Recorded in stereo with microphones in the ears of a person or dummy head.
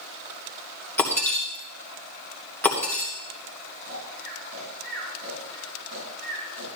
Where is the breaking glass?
15° left (ahead or behind), 2.5 m.